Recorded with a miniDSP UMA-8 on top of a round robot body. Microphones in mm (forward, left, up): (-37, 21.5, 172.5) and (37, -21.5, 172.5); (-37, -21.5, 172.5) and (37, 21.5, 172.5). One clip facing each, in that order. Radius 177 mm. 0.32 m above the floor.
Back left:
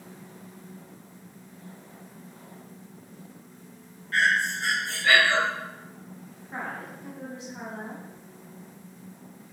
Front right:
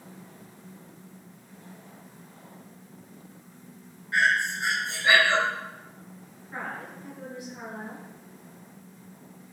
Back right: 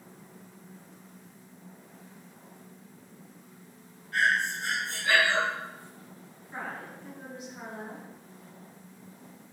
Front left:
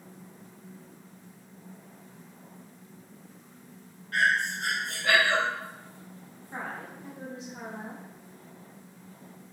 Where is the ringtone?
I don't hear a ringtone.